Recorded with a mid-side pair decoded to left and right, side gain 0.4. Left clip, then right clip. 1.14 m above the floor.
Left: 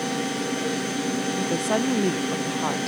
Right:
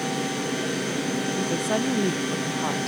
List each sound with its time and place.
0.0 s a fan: 10° right, 4 m
1.4 s a woman speaking: 15° left, 0.6 m